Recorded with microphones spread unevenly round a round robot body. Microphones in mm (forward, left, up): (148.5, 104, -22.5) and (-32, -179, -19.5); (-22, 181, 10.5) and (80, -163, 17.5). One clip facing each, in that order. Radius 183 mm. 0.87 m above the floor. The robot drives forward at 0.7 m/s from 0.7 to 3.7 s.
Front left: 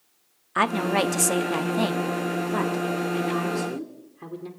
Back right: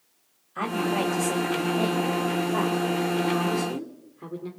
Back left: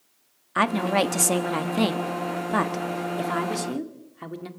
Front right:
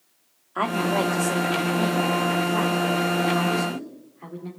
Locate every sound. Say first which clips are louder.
0.6 s a woman speaking: front left 2 dB, back left 1 dB; 60° left, 1.4 m; by 4.5 s 140° left, 1.9 m